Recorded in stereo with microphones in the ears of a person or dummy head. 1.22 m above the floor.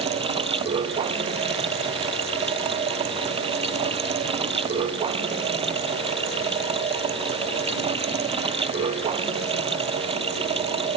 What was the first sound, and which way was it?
Running water, 25° right (ahead or behind).